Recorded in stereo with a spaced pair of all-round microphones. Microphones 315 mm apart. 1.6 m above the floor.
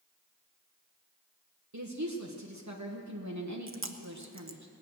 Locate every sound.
1.7 s a woman speaking: 60° right (ahead or behind), 1.3 m
3.7 s chewing: 40° right (ahead or behind), 0.8 m